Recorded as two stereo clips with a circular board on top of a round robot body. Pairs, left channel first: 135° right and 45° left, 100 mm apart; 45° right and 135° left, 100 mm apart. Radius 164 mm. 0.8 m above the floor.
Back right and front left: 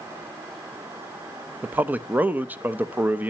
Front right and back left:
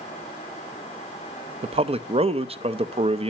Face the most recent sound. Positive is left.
turn(degrees=120)